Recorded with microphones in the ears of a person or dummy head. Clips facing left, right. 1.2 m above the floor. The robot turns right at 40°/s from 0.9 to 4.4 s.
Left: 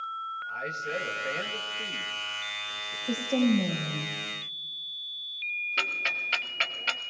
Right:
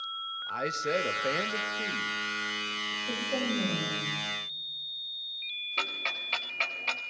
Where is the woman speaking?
10° left, 6 m; by 4.2 s 60° left, 6 m.